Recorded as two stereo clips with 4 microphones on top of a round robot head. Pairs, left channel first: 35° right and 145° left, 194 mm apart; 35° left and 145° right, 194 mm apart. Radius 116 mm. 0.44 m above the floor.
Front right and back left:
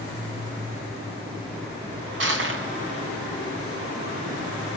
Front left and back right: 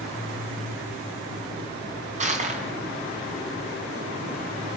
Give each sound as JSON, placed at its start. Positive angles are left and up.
{"t": 2.2, "sound": "crushing", "azimuth_deg": 160, "distance_m": 5.0}